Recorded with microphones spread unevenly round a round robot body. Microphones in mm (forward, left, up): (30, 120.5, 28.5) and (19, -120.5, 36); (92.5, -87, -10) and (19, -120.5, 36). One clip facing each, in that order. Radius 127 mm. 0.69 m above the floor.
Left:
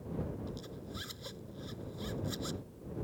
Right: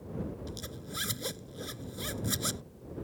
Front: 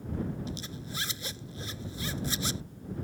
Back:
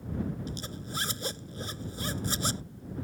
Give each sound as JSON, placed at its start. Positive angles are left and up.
{"t": 0.5, "sound": "a zipper", "azimuth_deg": -120}